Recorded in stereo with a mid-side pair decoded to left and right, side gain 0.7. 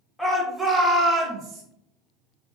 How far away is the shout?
About 1.3 m.